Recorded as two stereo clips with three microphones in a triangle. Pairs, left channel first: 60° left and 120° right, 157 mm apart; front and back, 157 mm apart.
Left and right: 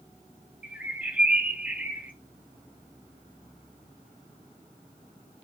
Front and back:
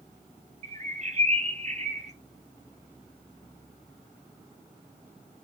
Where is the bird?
160° left, 0.7 m.